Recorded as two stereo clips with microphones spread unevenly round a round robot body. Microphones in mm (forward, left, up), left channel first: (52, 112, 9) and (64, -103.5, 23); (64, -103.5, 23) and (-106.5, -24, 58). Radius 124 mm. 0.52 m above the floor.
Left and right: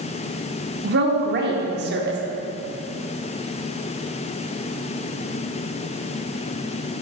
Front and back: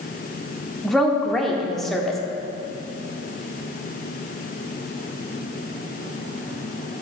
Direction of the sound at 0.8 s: 100° right.